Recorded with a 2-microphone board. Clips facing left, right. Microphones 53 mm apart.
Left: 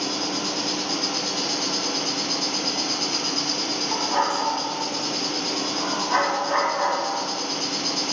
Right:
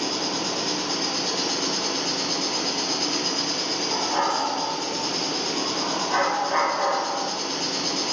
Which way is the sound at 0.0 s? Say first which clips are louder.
Even; 15° right (ahead or behind).